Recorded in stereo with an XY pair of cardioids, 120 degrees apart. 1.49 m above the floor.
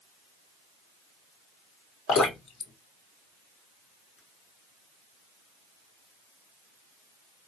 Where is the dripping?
55° left, 1.9 m.